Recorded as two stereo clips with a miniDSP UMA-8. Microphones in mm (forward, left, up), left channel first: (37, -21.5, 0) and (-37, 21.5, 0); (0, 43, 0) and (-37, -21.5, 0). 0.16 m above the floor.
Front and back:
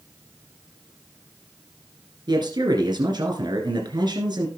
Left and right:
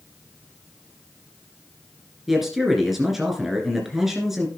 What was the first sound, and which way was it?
A man speaking, 155° left.